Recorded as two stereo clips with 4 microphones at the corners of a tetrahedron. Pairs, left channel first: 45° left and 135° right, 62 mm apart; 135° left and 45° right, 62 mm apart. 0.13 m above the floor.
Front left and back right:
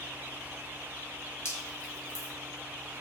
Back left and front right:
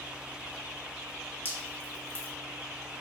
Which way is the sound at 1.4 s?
5° left.